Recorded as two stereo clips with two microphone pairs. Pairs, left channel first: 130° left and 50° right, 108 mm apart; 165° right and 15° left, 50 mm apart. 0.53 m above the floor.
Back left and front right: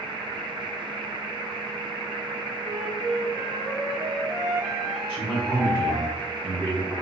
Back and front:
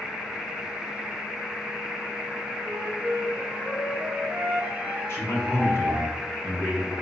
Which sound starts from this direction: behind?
A man speaking, at 5.1 s.